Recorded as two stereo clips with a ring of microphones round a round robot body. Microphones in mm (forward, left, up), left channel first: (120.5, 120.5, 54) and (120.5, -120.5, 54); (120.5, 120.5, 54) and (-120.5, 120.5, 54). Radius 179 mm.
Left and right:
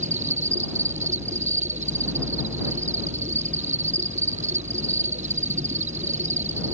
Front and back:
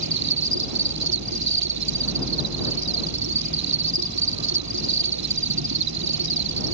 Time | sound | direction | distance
0.0 | an insect | 160° right | ?